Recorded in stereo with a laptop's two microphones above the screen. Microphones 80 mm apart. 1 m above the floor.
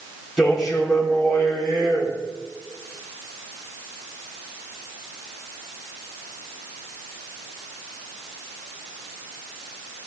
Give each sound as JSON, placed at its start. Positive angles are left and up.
{"t": 0.4, "sound": "a man speaking", "side_deg": -5, "distance_m": 3.0}